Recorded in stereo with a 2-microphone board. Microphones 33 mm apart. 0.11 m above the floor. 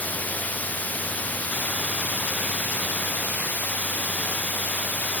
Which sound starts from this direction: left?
Running water, at 0.0 s.